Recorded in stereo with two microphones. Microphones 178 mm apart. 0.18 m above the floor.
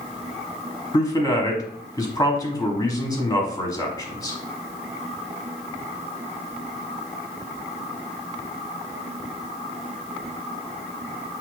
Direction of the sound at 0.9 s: 20° left (ahead or behind).